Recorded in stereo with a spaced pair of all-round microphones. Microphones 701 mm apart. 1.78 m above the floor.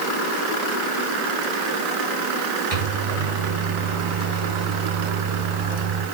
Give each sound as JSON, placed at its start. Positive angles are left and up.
{"t": 2.7, "sound": "a microwave", "side_deg": -50, "distance_m": 4.0}